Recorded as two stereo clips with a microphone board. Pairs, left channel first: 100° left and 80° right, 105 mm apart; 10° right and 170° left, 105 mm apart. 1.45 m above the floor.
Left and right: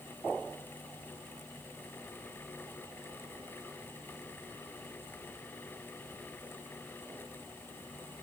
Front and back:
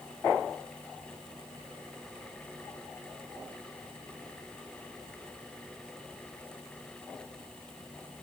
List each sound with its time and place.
Only background noise.